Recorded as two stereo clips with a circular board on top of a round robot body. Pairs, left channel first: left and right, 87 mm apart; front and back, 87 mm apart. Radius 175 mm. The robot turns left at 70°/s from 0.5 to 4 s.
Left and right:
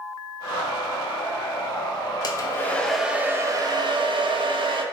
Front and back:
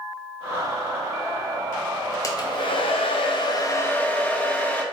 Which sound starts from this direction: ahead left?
A hair dryer, at 2.2 s.